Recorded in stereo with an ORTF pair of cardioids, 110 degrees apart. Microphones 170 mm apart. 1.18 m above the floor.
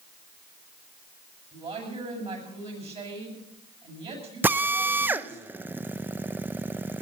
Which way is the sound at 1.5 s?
35° right.